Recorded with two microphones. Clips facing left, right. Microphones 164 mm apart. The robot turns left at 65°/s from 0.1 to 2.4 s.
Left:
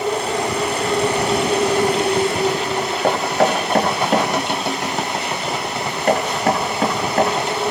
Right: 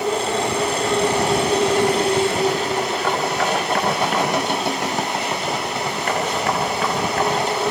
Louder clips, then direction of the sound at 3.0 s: Left 8 dB; 35° left (ahead or behind).